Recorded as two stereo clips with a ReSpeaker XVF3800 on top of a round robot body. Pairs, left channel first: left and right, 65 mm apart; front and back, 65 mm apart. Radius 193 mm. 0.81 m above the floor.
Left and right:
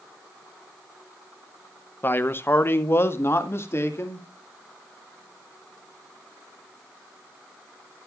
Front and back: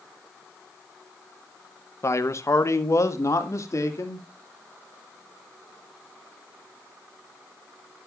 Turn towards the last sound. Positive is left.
turn(degrees=40)